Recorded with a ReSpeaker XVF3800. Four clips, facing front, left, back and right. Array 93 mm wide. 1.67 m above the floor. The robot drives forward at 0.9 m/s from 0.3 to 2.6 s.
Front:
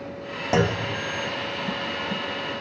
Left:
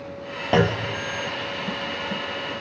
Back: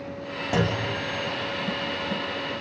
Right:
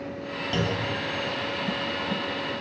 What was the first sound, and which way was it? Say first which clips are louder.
A clunk: left 8 dB, front 3 dB; 65° left.